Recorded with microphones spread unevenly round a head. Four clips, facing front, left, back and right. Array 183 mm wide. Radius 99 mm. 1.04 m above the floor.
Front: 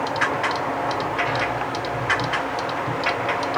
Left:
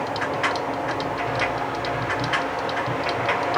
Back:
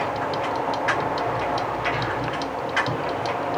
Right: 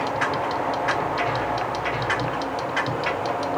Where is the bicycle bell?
No bicycle bell in this recording.